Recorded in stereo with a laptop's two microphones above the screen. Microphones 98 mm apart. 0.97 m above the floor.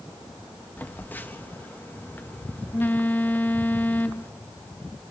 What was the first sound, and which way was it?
A phone buzzing, 20° left (ahead or behind).